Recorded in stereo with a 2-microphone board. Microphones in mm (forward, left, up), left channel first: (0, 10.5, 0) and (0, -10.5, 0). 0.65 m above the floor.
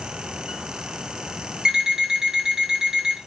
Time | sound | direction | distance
1.6 | an alarm clock | 35° right (ahead or behind) | 0.8 m